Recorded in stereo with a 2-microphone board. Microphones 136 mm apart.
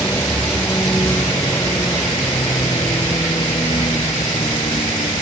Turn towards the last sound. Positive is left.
turn(degrees=35)  # may be behind; listen again after turning